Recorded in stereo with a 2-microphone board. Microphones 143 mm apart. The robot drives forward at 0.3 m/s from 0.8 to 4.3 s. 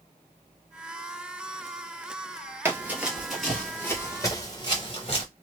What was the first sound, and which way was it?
Running footsteps, 15° right (ahead or behind).